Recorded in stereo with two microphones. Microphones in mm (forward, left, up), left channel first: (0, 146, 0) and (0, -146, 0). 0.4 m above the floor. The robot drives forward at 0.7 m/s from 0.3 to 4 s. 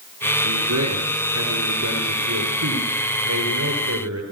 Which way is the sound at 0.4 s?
75° right (ahead or behind).